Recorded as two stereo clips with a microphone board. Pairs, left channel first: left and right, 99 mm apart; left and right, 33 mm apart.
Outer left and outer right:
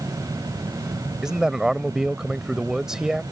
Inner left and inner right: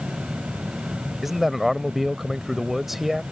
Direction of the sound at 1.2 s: 5° right (ahead or behind).